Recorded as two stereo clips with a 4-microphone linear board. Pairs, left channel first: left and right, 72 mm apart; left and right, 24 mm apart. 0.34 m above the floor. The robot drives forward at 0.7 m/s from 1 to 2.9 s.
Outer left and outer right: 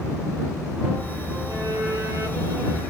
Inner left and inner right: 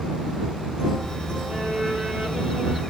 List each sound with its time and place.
1.5 s a violin: 50° right (ahead or behind), 4.5 m; by 2.8 s 45° right (ahead or behind), 5 m